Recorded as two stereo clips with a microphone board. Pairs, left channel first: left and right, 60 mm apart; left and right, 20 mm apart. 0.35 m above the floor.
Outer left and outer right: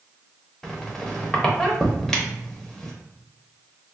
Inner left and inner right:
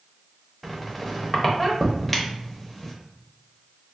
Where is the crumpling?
I don't hear crumpling.